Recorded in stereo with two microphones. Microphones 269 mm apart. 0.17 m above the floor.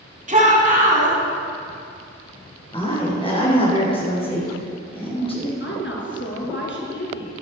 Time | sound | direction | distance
0.3 | a shout | 30° right (ahead or behind) | 1.8 m
2.7 | a woman speaking | 20° left (ahead or behind) | 2.5 m
5.6 | a woman speaking | 45° left (ahead or behind) | 2 m